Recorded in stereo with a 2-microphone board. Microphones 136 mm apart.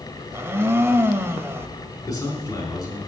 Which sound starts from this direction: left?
A man speaking, at 2.1 s.